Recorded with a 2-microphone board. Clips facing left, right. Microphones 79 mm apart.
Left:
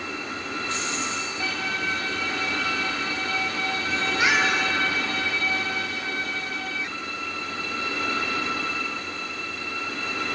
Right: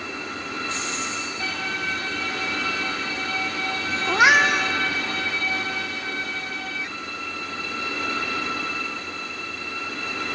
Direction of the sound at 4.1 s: 70° right (ahead or behind).